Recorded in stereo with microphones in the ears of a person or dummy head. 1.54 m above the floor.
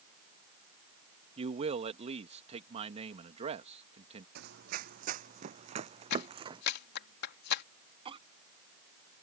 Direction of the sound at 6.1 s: 65° left (ahead or behind).